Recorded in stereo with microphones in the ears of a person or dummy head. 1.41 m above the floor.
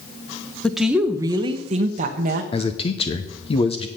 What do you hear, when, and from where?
0.6 s a woman speaking: 5° left (ahead or behind), 0.7 m; by 2.4 s 50° right (ahead or behind), 1.2 m
2.5 s a man speaking: 30° left (ahead or behind), 0.7 m